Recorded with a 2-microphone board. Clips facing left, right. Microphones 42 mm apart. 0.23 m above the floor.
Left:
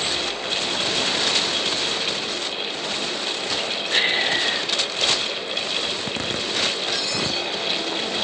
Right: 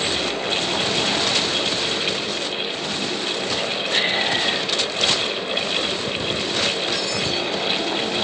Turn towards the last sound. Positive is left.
turn(degrees=60)  # may be behind; listen again after turning